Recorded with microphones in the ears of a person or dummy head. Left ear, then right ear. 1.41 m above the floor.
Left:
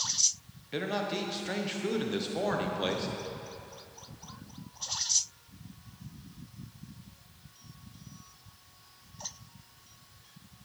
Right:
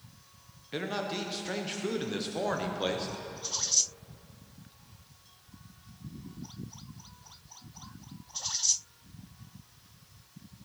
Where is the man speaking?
5° right (ahead or behind), 0.8 m.